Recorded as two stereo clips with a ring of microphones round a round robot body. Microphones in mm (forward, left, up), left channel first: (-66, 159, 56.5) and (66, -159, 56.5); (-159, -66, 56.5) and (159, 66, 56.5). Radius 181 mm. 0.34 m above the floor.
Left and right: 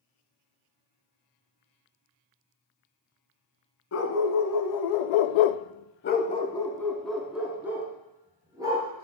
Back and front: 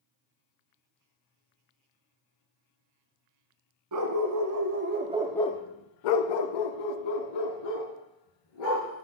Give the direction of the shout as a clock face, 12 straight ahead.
No shout in this recording.